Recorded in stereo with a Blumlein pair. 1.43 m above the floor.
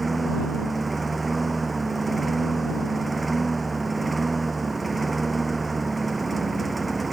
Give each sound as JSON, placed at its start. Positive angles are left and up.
{"t": 0.0, "sound": "a lawn mower", "azimuth_deg": -10}